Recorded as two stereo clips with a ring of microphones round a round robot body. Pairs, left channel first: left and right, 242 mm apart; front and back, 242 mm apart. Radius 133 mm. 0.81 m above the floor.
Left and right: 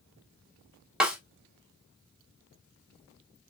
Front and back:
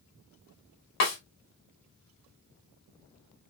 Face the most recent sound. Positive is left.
turn(degrees=-5)